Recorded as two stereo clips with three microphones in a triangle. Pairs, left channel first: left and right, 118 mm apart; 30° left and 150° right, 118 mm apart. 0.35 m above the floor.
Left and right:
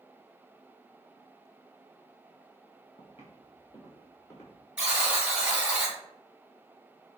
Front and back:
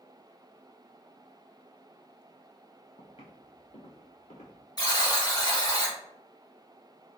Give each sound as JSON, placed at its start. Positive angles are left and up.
{"t": 3.0, "sound": "footsteps", "azimuth_deg": 60, "distance_m": 1.6}
{"t": 4.8, "sound": "a buzzer", "azimuth_deg": -10, "distance_m": 1.8}